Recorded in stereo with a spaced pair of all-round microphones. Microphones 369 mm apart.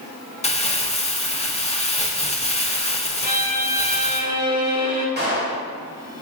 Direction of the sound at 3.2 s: 50° left (ahead or behind).